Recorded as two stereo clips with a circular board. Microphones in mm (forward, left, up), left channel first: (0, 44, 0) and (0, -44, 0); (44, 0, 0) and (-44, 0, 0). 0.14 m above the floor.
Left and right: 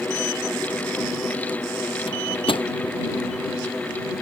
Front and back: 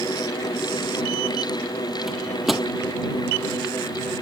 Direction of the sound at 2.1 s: 90° left.